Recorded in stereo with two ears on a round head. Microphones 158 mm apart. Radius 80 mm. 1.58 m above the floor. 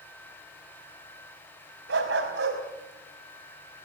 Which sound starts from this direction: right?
A dog barking, at 1.9 s.